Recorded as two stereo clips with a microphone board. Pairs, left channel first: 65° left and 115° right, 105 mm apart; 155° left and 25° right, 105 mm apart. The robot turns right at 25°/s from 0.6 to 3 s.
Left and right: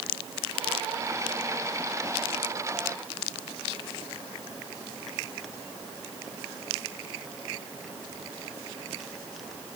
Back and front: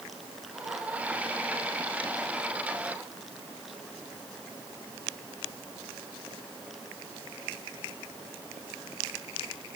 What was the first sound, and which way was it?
Only background noise.